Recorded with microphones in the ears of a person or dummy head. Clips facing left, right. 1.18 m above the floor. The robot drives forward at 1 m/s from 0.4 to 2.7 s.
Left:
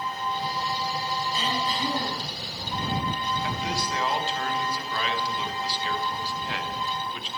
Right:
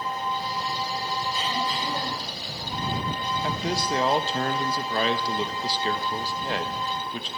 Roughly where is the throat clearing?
Left.